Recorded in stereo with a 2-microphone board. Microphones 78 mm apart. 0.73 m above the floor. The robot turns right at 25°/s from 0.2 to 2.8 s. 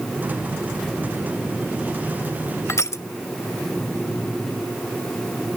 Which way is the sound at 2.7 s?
40° left (ahead or behind).